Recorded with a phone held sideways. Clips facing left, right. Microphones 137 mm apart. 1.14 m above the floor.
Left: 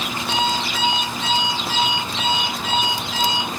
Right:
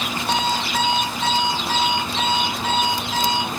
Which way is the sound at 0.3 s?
50° right (ahead or behind).